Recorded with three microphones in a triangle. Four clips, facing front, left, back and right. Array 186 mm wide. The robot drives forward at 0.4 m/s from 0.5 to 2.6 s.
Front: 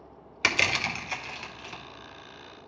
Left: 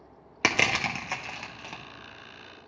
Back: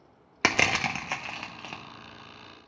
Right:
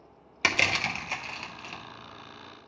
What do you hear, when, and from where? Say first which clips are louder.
0.4 s crushing: left 2 dB, back 3 dB; 150° left, 0.8 m; by 1.8 s 165° left, 1.2 m